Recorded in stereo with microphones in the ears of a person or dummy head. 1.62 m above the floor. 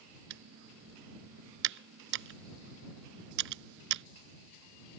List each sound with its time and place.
0.3 s typing on a keyboard: 65° right (ahead or behind)